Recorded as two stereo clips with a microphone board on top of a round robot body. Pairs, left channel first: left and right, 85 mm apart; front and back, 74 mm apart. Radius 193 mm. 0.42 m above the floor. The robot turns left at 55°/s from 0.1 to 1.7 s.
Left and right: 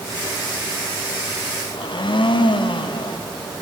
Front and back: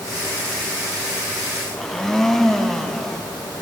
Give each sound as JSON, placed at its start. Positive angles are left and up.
{"t": 1.7, "sound": "a blender", "azimuth_deg": 85, "distance_m": 0.5}